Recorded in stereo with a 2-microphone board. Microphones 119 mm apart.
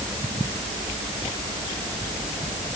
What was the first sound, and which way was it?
Only background noise.